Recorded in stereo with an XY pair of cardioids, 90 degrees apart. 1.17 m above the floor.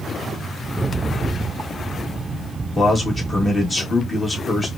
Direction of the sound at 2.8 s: 35° left.